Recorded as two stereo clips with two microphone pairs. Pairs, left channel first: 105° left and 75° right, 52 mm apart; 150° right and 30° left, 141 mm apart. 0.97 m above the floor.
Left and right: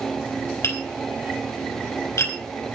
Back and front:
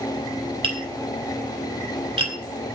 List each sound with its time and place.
0.6 s tapping: 80° left, 4 m